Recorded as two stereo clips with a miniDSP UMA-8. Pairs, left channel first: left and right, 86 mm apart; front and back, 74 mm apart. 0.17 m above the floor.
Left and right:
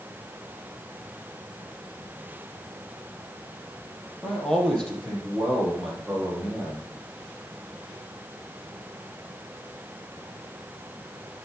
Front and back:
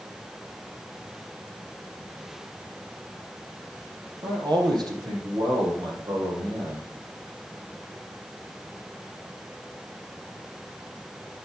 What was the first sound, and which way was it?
A man speaking, 170° left.